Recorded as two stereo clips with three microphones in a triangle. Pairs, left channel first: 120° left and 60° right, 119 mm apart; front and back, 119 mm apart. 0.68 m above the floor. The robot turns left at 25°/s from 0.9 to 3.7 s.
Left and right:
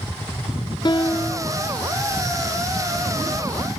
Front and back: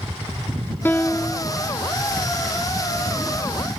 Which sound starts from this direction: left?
A piano, at 0.8 s.